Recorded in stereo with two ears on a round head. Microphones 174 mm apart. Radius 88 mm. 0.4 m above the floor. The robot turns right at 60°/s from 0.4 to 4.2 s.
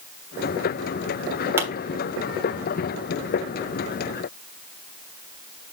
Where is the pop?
15° right (ahead or behind), 1.3 m.